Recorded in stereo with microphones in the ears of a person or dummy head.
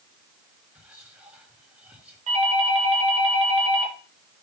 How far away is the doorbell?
About 3 m.